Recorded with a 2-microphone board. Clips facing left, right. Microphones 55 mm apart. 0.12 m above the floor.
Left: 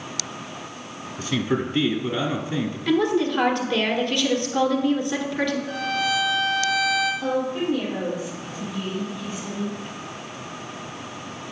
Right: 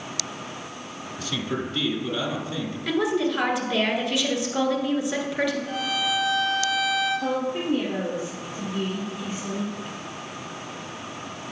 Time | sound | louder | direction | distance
1.2 | a man speaking | left 5 dB | 30° left (ahead or behind) | 1.2 m
2.9 | a woman speaking | left 3 dB | 5° right (ahead or behind) | 1.4 m
5.7 | a violin | left 2 dB | 60° right (ahead or behind) | 2.5 m
7.2 | a woman speaking | left 2 dB | 45° right (ahead or behind) | 2.5 m